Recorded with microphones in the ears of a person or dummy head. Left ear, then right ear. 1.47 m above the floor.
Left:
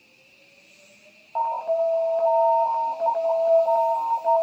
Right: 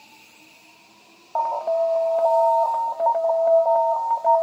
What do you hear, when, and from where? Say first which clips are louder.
1.4 s an alarm: right 2 dB; 25° right (ahead or behind), 0.6 m